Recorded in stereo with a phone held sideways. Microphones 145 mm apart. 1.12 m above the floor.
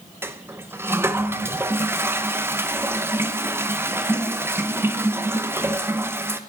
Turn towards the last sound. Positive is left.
turn(degrees=-15)  # may be behind; listen again after turning